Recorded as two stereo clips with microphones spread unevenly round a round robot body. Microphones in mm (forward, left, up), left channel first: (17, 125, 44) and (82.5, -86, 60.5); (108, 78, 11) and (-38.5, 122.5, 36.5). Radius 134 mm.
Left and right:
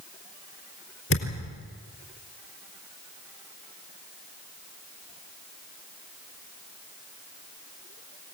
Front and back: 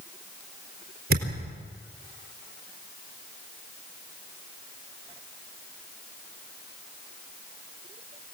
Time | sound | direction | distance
1.1 | a thud | 150° left | 4 m